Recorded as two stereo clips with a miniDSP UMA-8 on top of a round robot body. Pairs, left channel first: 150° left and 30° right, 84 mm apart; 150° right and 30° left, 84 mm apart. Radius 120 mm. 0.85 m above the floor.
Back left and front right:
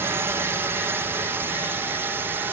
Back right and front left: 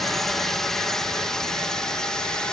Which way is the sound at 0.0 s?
65° right.